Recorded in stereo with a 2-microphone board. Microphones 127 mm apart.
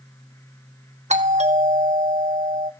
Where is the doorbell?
65° right (ahead or behind), 2 m.